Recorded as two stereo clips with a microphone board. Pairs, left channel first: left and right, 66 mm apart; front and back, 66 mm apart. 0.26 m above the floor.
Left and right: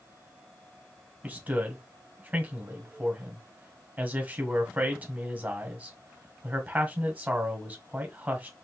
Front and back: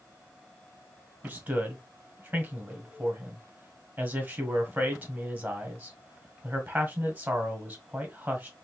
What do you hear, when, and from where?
1.2 s a man speaking: 135° right, 1.6 m